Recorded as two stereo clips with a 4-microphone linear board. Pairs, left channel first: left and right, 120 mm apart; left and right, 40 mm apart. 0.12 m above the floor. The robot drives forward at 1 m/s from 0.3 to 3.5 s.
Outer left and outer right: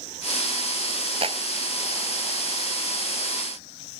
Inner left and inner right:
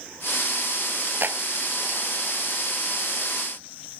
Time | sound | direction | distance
1.2 | a clap | 55° right (ahead or behind) | ?